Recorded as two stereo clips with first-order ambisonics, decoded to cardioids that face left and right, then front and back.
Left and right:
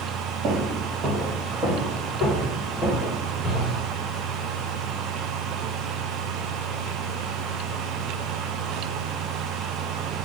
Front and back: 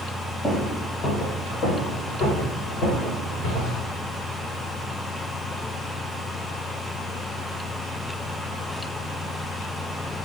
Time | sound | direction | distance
0.4 | footsteps | 60° right | 1.9 m